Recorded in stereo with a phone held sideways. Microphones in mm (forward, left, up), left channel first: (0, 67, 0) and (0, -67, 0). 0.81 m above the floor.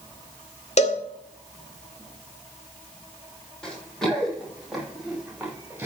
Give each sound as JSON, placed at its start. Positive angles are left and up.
{"t": 0.8, "sound": "a cowbell", "side_deg": 55, "distance_m": 1.7}
{"t": 3.6, "sound": "running footsteps", "side_deg": 5, "distance_m": 6.5}